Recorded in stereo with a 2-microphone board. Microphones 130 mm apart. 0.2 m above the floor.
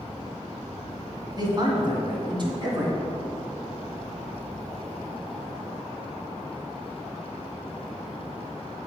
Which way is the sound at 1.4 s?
35° right (ahead or behind).